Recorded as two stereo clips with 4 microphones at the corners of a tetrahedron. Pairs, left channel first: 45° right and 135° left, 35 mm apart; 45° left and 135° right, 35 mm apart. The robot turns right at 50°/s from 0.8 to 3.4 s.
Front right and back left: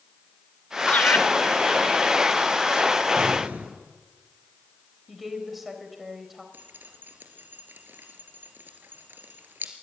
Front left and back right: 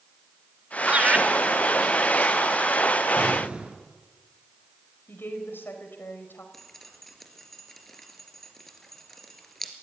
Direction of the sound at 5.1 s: 50° left.